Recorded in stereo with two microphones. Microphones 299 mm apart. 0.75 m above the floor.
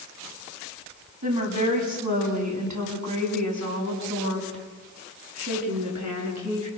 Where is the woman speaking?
75° right (ahead or behind), 5 m; by 6.7 s 65° right (ahead or behind), 9.5 m.